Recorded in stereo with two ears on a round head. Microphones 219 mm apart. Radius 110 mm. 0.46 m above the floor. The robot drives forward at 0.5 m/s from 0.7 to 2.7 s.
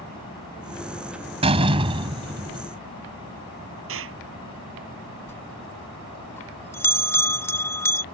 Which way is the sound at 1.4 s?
25° right (ahead or behind).